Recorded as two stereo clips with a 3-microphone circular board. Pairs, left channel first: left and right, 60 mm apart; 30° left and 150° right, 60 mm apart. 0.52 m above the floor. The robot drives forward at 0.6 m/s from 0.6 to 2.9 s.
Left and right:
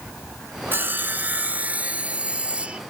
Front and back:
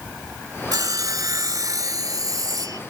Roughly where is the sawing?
Behind right.